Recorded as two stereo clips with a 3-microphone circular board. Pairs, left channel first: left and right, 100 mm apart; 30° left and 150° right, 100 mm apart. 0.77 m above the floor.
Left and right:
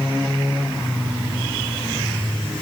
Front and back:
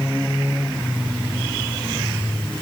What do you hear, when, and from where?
Only background noise.